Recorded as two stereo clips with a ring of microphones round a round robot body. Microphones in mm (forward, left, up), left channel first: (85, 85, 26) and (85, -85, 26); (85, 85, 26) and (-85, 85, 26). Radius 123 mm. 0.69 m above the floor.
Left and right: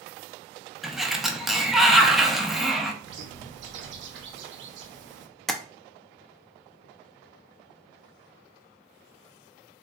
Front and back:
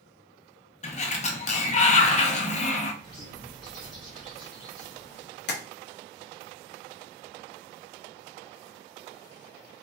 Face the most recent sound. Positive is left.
turn(degrees=0)